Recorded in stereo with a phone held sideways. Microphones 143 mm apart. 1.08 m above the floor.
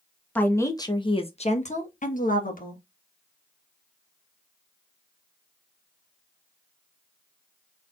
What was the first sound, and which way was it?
A woman speaking, 10° left (ahead or behind).